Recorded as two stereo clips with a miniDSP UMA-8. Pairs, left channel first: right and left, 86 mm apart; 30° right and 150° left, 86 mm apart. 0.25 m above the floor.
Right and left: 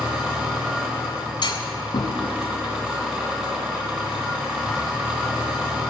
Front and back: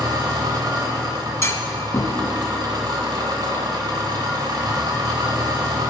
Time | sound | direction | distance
0.0 | an engine running | 160° left | 2 m
1.4 | a clunk | 80° right | 0.7 m